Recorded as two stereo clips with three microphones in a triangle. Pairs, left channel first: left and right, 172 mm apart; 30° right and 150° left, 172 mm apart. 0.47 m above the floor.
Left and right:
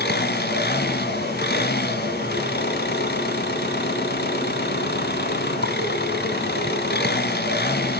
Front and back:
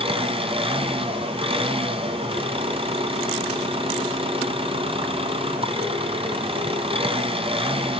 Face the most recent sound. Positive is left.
turn(degrees=95)